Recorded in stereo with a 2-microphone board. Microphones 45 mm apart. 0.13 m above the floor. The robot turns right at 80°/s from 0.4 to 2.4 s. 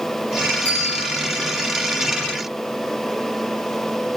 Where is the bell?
30° left, 10 m; by 1.1 s 65° left, 10 m.